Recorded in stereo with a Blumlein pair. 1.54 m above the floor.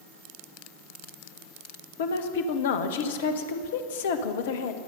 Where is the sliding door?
No sliding door in this recording.